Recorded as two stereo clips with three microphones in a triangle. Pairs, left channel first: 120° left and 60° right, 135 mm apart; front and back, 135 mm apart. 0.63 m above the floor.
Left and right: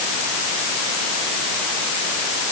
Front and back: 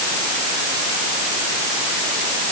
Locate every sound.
Only background noise.